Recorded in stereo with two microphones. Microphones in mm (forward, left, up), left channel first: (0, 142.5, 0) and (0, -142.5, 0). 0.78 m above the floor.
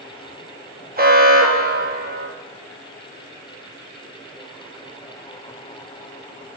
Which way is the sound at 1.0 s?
30° right (ahead or behind).